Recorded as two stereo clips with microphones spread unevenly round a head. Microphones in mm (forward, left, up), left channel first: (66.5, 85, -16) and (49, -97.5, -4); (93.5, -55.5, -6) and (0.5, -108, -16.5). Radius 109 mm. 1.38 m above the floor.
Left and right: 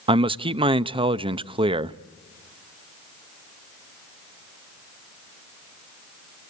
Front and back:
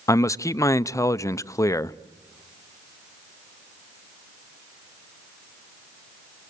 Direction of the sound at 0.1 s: 35° right.